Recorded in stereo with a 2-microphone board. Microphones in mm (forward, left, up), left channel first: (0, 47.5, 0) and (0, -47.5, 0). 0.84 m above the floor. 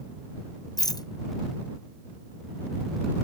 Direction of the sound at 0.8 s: 45° left (ahead or behind).